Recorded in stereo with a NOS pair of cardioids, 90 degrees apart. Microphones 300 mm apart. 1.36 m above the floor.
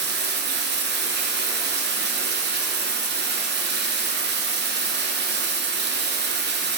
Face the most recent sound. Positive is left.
turn(degrees=-35)